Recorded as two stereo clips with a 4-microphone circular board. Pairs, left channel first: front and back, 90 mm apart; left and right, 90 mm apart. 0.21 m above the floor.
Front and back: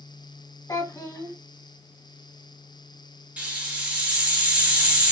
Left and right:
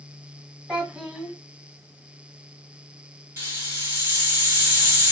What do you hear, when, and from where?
0.7 s a child speaking: 15° right, 1.1 m
3.4 s a hiss: 120° right, 1.7 m